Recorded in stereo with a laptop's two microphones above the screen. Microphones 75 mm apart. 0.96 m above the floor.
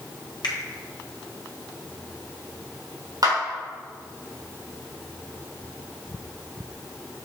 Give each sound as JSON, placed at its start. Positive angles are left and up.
{"t": 0.4, "sound": "a finger snap", "side_deg": 75, "distance_m": 1.7}
{"t": 3.2, "sound": "a clap", "side_deg": -55, "distance_m": 2.5}